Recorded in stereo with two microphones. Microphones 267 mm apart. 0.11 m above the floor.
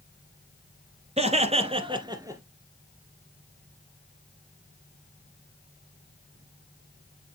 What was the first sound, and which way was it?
Laughter, 25° right (ahead or behind).